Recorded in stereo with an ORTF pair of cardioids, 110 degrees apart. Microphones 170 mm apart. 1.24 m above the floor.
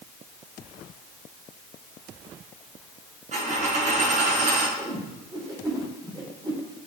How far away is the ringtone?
I don't hear a ringtone.